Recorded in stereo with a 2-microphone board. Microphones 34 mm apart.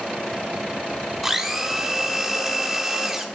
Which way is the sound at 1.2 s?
10° right (ahead or behind).